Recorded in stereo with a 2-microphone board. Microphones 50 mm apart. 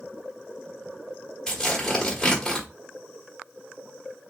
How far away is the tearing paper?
About 1.2 m.